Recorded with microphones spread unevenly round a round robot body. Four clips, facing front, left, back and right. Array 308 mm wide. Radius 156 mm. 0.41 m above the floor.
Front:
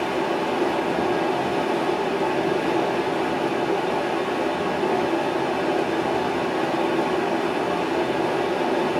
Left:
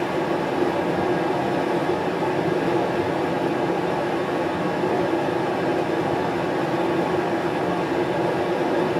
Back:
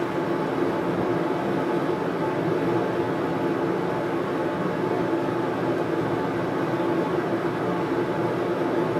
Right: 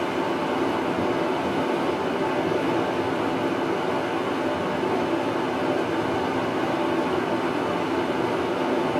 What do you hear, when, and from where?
0.0 s running water: 135° left, 1.7 m